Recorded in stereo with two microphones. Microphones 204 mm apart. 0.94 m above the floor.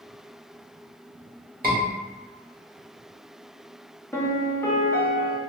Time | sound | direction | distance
1.6 | a scream | 45° right (ahead or behind) | 1.3 m
4.1 | a piano | 10° left (ahead or behind) | 0.6 m